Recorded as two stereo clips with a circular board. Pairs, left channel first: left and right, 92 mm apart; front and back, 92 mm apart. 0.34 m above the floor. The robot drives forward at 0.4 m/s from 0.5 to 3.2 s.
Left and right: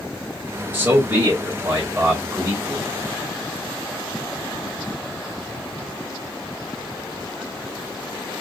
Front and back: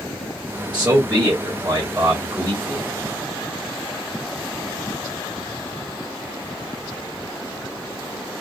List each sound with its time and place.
0.7 s a man speaking: 125° right, 1.3 m; by 2.9 s 160° right, 1.7 m